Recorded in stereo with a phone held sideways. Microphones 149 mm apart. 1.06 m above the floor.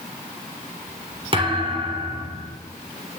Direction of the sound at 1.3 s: 35° right (ahead or behind).